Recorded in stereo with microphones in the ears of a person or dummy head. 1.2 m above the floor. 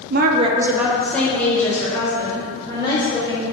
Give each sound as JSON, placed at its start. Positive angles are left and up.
{"t": 0.1, "sound": "a woman speaking", "side_deg": -55, "distance_m": 0.6}